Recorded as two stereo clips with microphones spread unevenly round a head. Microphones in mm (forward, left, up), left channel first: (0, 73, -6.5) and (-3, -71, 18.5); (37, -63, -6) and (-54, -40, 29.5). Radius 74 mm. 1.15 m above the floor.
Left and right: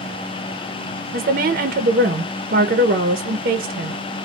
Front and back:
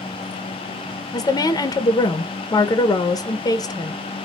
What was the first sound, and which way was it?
A woman speaking, 55° right.